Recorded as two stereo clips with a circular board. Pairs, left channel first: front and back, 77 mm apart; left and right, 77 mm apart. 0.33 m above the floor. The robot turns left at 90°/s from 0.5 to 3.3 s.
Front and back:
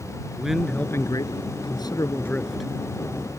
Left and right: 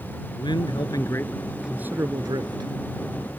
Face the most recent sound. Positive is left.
turn(degrees=-155)